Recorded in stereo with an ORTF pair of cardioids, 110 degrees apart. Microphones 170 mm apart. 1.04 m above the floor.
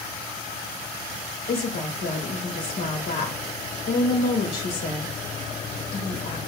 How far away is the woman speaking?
About 4 m.